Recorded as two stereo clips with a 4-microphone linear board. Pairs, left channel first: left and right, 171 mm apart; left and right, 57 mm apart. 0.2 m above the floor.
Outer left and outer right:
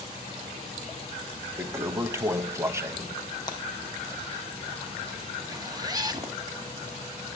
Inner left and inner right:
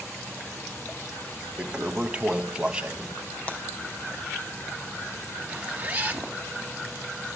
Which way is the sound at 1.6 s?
15° right (ahead or behind).